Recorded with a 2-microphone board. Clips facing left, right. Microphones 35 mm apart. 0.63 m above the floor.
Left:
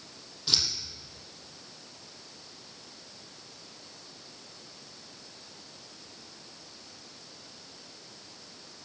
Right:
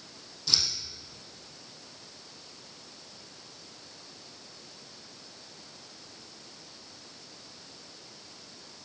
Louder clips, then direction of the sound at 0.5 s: Left 1 dB; 25° left (ahead or behind).